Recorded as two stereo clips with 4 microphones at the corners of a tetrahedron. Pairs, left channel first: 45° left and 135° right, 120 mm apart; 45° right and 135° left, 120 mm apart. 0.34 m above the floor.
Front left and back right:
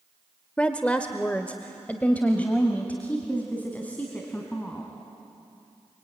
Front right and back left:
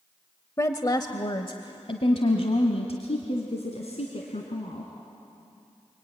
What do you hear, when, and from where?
0.6 s a woman speaking: 25° right, 0.9 m; by 4.9 s 30° right, 3 m